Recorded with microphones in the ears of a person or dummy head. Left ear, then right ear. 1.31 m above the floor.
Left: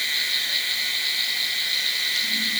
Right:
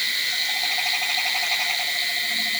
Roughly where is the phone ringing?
No phone ringing in this recording.